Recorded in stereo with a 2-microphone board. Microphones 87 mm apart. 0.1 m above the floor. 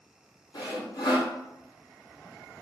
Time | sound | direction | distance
0.5 | sawing | 55° left (ahead or behind) | 0.9 m